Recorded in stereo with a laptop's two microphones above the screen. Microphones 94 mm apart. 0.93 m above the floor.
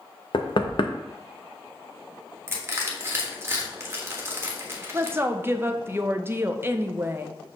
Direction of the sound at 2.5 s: 25° right (ahead or behind).